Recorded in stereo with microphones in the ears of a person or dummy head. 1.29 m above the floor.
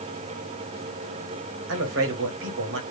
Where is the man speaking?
65° right (ahead or behind), 1.2 m.